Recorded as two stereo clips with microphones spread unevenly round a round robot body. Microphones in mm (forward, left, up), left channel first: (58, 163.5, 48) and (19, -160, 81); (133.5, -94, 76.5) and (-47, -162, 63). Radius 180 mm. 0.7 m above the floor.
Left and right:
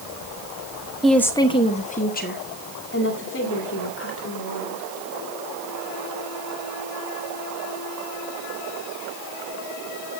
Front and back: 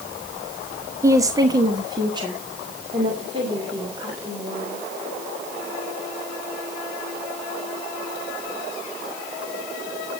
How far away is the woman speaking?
About 0.9 m.